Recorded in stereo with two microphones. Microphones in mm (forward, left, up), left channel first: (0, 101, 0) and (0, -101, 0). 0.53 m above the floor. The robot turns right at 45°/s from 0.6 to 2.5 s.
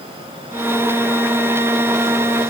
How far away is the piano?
No piano in this recording.